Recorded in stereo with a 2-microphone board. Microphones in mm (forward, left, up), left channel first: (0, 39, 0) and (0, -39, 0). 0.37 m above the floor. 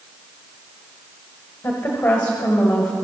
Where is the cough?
I don't hear a cough.